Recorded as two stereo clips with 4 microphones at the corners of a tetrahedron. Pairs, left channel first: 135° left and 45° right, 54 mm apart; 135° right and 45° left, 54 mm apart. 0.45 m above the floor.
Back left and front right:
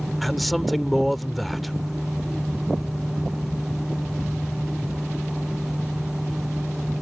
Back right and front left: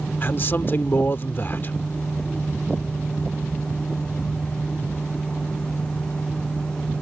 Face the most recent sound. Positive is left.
turn(degrees=-140)